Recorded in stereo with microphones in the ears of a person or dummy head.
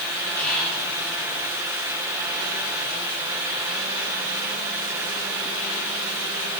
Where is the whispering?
10° left (ahead or behind), 1.6 m.